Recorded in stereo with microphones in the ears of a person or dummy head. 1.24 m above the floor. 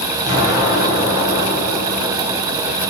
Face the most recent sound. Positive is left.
turn(degrees=-20)  # may be behind; listen again after turning